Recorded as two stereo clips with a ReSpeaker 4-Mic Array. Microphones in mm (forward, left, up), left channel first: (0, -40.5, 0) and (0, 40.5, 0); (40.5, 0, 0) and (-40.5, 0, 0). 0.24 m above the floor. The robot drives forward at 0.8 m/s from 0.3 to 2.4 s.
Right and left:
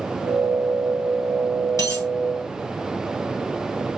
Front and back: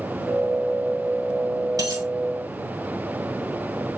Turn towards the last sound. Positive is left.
turn(degrees=-145)